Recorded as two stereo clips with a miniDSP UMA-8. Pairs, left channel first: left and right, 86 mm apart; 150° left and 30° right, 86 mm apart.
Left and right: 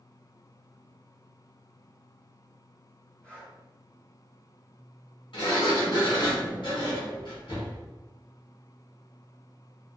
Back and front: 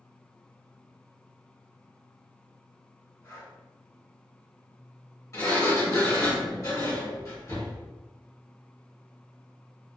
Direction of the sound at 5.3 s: 100° left.